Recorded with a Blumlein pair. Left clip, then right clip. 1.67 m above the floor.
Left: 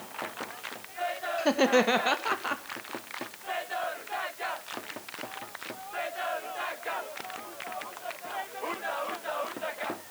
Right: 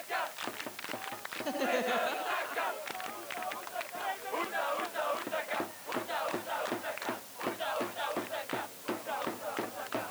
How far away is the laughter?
About 1.9 m.